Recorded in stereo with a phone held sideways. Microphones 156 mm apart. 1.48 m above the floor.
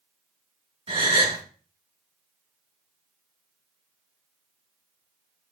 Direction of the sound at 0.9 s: 40° right (ahead or behind).